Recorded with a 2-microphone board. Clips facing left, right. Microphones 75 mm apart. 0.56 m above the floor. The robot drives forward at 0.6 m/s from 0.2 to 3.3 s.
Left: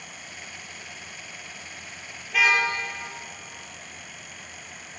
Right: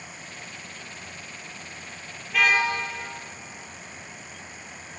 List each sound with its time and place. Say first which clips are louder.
2.3 s a car horn: even; 5° left (ahead or behind), 5 m